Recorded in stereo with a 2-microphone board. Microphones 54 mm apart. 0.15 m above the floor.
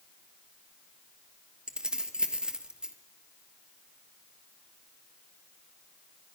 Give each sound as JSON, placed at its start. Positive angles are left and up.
{"t": 1.7, "sound": "keys jangling", "side_deg": -15, "distance_m": 2.5}